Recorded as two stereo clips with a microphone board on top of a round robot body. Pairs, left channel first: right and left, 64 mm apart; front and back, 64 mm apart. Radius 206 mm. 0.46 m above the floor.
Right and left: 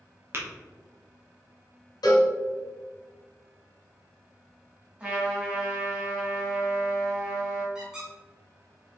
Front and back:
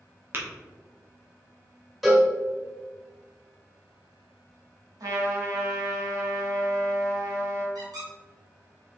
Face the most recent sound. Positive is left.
turn(degrees=170)